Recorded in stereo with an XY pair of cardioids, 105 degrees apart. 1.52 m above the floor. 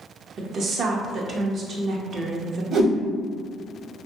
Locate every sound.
0.4 s a woman speaking: 55° right, 0.6 m
2.7 s a whoosh: 60° right, 1.3 m